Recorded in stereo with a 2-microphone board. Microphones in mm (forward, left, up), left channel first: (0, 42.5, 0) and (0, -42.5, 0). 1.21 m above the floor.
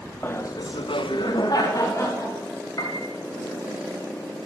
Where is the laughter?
25° left (ahead or behind), 0.8 m; by 2.4 s 40° left (ahead or behind), 2 m.